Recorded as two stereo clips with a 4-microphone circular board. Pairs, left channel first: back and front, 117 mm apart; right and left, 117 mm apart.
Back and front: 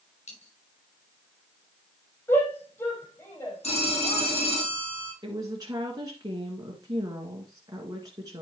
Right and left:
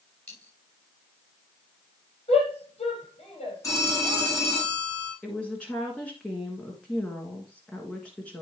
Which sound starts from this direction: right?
A shout, at 2.3 s.